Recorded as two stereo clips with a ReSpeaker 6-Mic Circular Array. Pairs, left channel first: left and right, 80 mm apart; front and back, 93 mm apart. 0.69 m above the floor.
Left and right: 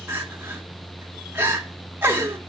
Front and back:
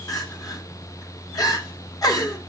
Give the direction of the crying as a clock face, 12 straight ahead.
1 o'clock.